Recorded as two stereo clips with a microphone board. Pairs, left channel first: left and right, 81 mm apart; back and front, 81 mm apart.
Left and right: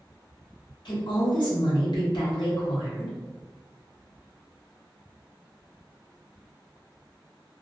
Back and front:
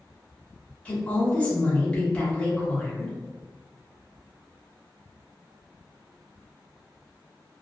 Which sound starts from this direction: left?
A woman speaking, at 0.8 s.